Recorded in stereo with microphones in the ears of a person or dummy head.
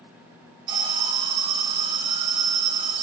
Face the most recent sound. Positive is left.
turn(degrees=-25)  # may be behind; listen again after turning